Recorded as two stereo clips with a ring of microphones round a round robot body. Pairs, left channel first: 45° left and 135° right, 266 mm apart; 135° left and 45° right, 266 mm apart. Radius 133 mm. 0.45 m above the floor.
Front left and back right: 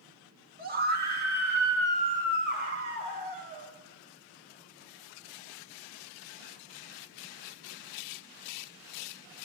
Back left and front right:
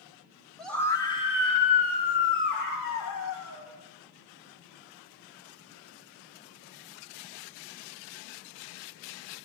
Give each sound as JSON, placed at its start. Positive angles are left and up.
{"t": 0.6, "sound": "a scream", "azimuth_deg": -135, "distance_m": 1.4}